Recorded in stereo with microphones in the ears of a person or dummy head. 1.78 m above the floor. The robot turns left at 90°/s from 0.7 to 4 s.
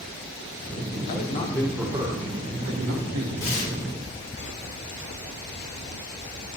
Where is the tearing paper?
60° left (ahead or behind), 3 m; by 3.7 s 75° left (ahead or behind), 3 m.